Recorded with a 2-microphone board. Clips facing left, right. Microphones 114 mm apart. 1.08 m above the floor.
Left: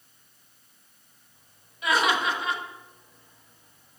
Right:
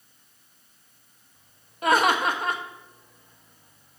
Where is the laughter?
45° right (ahead or behind), 0.9 m.